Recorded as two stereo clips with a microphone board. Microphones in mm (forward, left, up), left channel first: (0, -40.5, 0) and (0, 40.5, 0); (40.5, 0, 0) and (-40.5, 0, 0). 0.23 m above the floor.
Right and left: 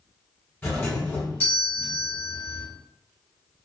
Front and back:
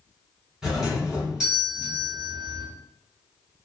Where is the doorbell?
115° right, 1.6 m.